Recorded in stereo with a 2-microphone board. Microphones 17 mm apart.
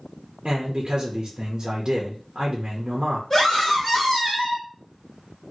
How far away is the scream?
About 1.3 m.